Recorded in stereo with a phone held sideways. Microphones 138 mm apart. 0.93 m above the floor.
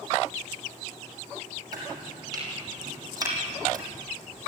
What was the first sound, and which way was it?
Chopping, 25° right (ahead or behind).